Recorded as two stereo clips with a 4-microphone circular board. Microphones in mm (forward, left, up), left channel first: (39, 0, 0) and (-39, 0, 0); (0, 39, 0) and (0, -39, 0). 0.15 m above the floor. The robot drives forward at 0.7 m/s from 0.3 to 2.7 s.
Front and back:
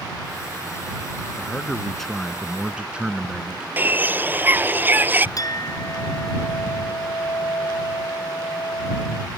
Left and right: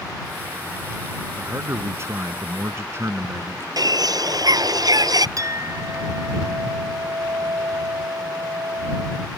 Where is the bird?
115° right.